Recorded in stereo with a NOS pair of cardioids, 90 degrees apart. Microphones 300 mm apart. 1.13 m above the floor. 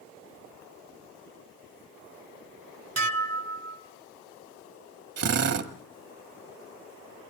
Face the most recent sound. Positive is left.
turn(degrees=-55)